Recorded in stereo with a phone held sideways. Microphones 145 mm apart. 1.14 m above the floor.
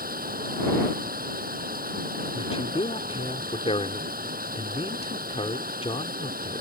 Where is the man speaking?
45° left (ahead or behind).